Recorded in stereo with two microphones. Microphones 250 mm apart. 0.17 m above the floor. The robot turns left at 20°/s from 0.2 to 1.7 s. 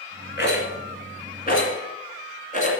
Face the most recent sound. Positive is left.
turn(degrees=30)  # may be behind; listen again after turning